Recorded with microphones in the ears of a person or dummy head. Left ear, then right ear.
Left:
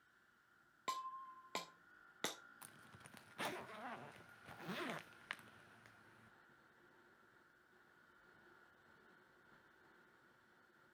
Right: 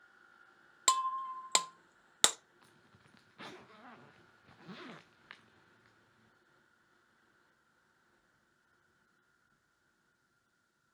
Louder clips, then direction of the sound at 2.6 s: Left 3 dB; 25° left (ahead or behind).